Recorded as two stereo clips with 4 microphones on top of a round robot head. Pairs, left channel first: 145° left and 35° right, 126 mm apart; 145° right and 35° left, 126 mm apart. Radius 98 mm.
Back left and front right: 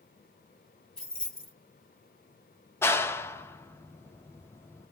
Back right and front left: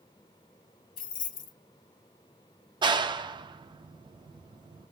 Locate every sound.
1.0 s keys jangling: 130° right, 0.9 m
2.8 s a clap: 80° left, 0.6 m